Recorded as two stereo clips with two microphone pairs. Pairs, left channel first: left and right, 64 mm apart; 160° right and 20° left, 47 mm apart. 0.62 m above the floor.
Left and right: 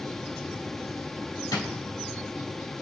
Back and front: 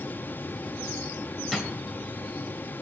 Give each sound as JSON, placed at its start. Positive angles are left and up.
{"t": 1.5, "sound": "a drawer", "azimuth_deg": 105, "distance_m": 1.6}